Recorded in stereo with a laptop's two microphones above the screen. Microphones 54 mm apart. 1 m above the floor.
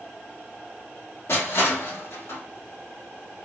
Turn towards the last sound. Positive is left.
turn(degrees=55)  # may be behind; listen again after turning